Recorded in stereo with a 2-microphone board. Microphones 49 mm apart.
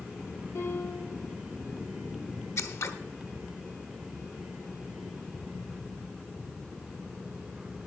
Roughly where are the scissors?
Left.